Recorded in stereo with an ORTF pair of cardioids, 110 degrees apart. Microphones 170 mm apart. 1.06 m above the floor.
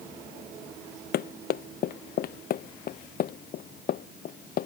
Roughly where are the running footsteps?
Ahead left.